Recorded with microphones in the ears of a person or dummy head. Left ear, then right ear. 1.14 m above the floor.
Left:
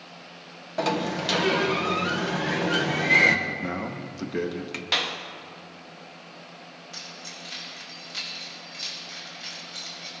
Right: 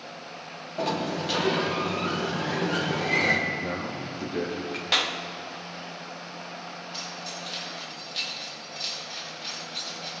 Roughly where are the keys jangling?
Left.